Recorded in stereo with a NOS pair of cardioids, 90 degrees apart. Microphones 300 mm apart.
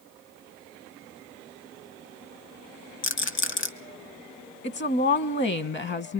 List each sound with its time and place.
3.0 s a rattle: 45° left, 1.5 m
4.6 s a woman speaking: 40° left, 1.3 m